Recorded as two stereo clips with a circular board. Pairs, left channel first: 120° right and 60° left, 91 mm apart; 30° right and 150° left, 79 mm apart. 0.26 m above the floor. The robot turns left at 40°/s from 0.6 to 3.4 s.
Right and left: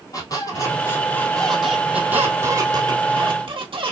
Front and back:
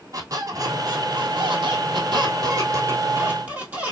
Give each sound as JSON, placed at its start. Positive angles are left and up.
{"t": 0.1, "sound": "a squeak", "azimuth_deg": -165, "distance_m": 1.6}